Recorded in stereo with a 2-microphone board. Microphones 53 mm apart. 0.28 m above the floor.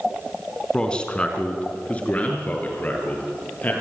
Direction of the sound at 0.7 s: 15° left (ahead or behind).